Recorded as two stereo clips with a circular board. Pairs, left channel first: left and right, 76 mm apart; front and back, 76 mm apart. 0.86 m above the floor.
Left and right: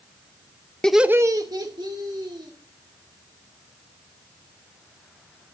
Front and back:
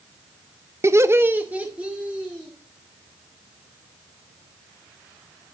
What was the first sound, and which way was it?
Laughter, 160° left.